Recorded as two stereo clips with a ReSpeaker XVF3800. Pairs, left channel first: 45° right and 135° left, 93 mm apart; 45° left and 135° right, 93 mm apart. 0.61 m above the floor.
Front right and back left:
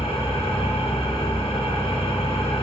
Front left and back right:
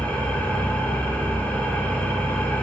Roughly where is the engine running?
Ahead right.